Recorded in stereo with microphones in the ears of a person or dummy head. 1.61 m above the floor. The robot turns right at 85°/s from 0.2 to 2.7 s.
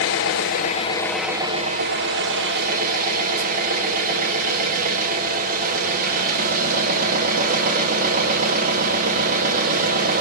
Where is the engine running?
95° left, 1.1 m; by 10.2 s 55° right, 1.1 m.